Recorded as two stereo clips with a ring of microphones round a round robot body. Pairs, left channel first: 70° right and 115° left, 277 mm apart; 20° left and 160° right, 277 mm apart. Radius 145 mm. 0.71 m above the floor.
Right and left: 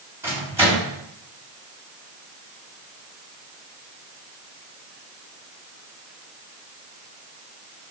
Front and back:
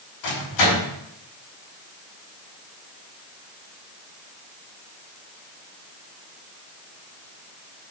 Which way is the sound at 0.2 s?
30° left.